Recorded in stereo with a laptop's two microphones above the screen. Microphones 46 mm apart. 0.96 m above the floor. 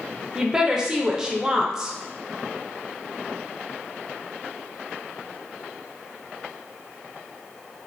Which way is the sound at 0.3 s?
15° right (ahead or behind).